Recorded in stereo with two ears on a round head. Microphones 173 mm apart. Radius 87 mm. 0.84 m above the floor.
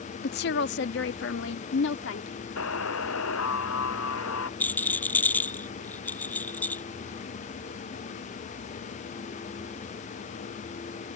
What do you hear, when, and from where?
0.2 s a woman speaking: 50° left (ahead or behind); by 2.3 s 70° left (ahead or behind)
2.6 s a buzzer: 85° left
4.6 s a rattle: 10° left (ahead or behind)